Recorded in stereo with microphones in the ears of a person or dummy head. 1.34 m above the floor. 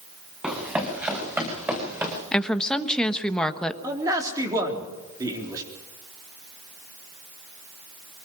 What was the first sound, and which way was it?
Running footsteps, 10° right (ahead or behind).